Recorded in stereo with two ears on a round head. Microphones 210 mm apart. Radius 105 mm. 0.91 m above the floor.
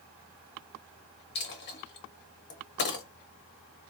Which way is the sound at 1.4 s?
50° left (ahead or behind).